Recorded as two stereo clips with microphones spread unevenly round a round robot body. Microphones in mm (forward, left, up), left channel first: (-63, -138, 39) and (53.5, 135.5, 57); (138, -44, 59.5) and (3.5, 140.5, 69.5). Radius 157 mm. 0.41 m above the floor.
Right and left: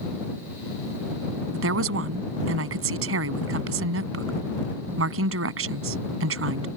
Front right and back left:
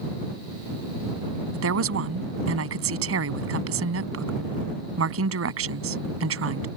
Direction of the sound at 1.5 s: 110° left.